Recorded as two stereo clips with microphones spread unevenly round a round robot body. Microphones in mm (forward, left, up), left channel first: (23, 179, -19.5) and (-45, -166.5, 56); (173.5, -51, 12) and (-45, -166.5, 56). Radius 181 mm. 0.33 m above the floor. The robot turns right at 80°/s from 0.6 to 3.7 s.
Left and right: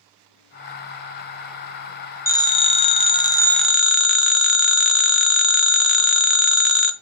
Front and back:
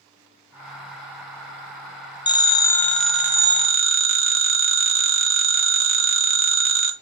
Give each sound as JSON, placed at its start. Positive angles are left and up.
{"t": 2.3, "sound": "a phone ringing", "azimuth_deg": 35, "distance_m": 0.6}